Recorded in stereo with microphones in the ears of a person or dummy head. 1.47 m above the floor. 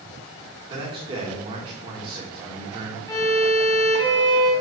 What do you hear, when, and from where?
0.7 s a man speaking: 30° right (ahead or behind), 1.7 m
3.1 s a violin: 15° left (ahead or behind), 1.4 m